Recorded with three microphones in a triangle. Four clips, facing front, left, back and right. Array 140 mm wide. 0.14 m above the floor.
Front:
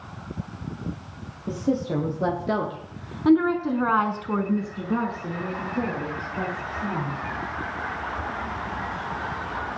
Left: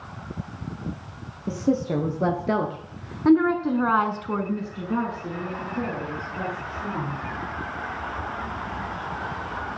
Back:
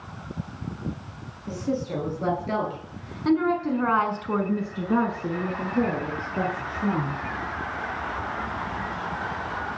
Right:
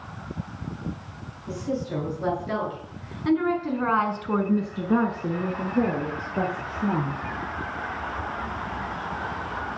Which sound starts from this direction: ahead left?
A woman speaking, at 1.5 s.